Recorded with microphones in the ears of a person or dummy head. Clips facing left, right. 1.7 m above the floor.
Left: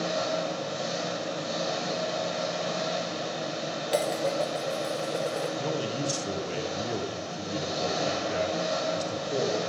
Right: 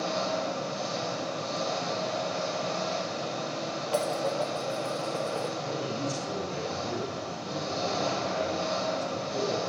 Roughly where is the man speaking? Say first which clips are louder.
Left 2 dB; left.